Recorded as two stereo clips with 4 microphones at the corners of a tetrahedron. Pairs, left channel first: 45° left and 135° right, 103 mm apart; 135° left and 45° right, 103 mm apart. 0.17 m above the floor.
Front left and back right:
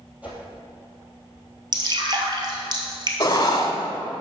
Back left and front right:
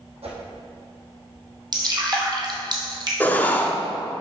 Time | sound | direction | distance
0.2 | a whoosh | 60° right | 2 m
1.7 | dripping | 90° right | 1.3 m
3.2 | writing | 70° left | 0.8 m